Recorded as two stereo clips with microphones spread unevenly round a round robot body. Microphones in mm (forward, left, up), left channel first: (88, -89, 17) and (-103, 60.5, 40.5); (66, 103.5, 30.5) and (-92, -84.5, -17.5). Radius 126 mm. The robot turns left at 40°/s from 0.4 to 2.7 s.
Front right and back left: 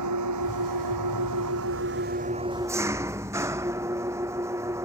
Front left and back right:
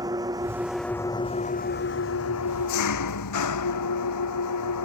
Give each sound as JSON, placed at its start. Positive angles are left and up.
{"t": 0.0, "sound": "an engine running", "azimuth_deg": 155}